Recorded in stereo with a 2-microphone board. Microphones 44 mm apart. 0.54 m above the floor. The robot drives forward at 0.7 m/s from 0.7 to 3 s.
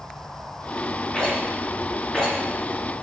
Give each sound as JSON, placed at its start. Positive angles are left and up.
{"t": 1.1, "sound": "a rattle", "side_deg": 20, "distance_m": 2.0}